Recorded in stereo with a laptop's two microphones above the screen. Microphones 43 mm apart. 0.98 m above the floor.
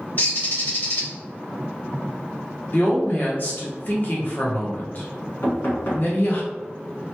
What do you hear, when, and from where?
0.2 s a bird: 50° left (ahead or behind), 1.4 m
2.7 s a woman speaking: 40° left (ahead or behind), 0.9 m
5.4 s knocking: 60° left (ahead or behind), 1.3 m